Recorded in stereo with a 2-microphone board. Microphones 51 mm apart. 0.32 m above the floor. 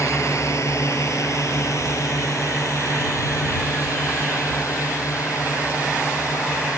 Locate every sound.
0.0 s a drone: 70° left (ahead or behind); by 6.8 s 85° left